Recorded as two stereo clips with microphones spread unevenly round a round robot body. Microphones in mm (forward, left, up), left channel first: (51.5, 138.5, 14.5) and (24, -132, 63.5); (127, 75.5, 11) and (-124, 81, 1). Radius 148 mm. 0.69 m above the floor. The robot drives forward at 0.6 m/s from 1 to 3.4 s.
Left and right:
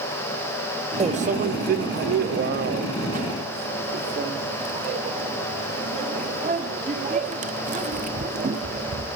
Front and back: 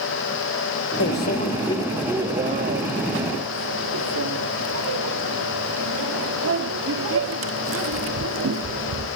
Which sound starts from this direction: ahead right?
A microwave, at 1.0 s.